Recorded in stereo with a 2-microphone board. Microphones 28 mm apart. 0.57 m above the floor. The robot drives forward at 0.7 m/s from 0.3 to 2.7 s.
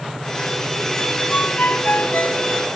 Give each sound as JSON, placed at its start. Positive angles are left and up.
{"t": 1.3, "sound": "a ringtone", "side_deg": 85}